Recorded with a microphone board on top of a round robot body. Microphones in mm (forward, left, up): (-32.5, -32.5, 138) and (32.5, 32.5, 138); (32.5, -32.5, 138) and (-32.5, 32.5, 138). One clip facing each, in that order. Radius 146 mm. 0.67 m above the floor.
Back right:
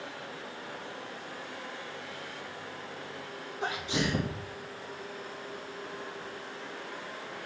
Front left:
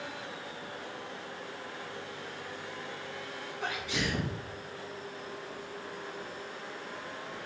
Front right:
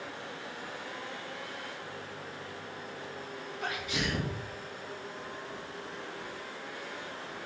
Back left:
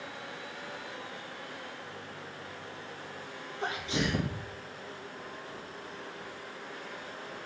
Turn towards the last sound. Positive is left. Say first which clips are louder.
# back right 3 dB, back left 3 dB
turn(degrees=175)